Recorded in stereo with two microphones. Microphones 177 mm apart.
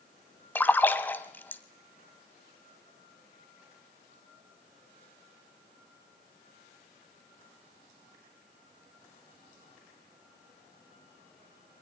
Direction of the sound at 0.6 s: 10° left (ahead or behind).